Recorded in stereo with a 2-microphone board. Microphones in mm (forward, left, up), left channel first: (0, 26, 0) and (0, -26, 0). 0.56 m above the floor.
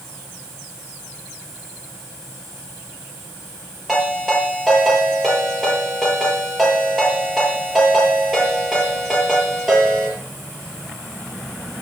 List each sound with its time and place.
3.9 s a ringtone: 5° right (ahead or behind), 8.5 m